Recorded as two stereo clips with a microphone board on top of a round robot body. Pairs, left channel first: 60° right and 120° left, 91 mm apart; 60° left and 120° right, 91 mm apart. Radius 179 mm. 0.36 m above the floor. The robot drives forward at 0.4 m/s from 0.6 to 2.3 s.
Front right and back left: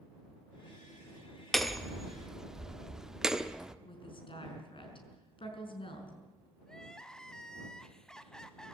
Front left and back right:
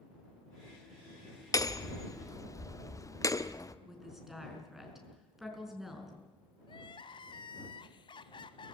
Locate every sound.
1.5 s hammering: 30° left, 1.4 m; by 3.8 s 40° left, 1.3 m
3.9 s a woman speaking: 35° right, 5 m
6.7 s crying: 25° left, 0.6 m